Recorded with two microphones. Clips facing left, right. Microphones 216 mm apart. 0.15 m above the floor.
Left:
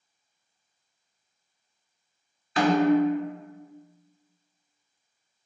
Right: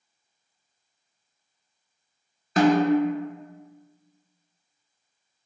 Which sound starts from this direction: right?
A snare drum, at 2.6 s.